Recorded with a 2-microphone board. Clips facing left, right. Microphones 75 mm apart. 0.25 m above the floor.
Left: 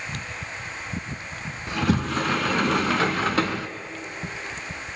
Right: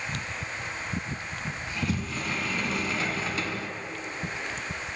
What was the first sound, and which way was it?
A sliding door, 75° left (ahead or behind).